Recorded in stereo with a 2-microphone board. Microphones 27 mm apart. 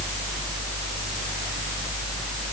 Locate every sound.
Only background noise.